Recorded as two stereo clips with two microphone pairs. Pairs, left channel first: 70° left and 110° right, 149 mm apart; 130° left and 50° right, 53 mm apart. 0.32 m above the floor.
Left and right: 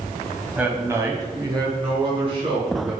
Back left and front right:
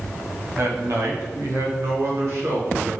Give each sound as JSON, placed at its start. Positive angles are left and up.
{"t": 0.6, "sound": "a man speaking", "azimuth_deg": -35, "distance_m": 1.7}